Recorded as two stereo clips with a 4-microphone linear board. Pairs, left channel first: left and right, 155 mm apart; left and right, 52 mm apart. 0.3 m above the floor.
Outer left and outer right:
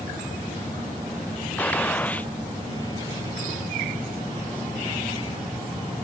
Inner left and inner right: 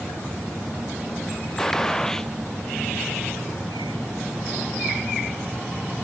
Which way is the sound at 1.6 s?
10° left (ahead or behind).